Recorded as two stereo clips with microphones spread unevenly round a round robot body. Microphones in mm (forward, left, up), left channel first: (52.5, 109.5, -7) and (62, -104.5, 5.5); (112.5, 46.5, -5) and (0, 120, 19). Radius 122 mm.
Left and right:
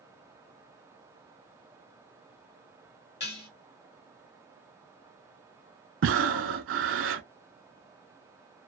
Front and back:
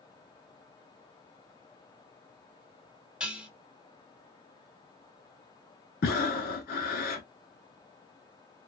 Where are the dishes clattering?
60° left, 1.2 m.